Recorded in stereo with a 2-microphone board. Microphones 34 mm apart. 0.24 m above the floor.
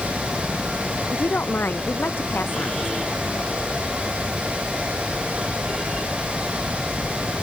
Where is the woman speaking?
80° left.